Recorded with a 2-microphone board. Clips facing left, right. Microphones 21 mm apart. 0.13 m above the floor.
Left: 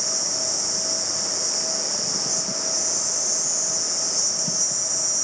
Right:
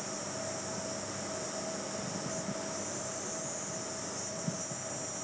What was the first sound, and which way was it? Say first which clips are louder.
An insect: left 14 dB; 65° left (ahead or behind).